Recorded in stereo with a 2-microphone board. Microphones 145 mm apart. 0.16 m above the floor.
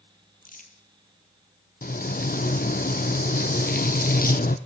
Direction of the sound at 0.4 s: 70° left (ahead or behind).